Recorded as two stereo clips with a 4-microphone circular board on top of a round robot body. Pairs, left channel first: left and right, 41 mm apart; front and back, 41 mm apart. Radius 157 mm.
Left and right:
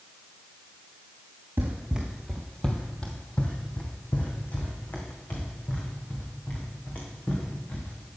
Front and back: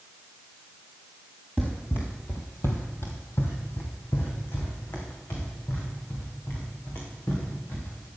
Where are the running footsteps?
80° right, 0.7 m; by 8.1 s 35° left, 5 m.